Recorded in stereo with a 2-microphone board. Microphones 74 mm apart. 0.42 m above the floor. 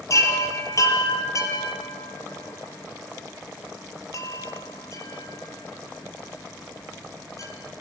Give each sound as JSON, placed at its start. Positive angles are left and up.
{"t": 0.1, "sound": "a chime", "side_deg": 45, "distance_m": 6.0}